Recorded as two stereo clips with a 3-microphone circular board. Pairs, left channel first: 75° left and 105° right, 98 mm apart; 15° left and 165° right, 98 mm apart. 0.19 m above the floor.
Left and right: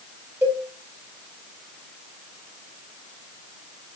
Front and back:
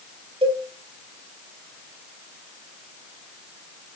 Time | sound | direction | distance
0.4 | a cowbell | 170° right | 2.5 m